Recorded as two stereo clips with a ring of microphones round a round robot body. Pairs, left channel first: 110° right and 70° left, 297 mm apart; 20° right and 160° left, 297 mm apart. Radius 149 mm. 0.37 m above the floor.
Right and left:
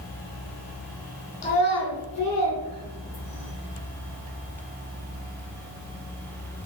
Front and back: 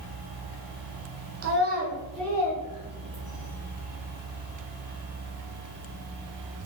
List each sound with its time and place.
1.4 s a child speaking: 175° right, 0.7 m; by 3.5 s 70° right, 1.4 m